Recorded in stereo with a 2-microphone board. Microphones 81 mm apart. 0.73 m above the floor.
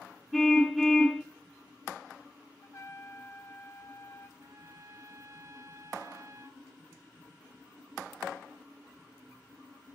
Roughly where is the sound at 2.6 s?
Left.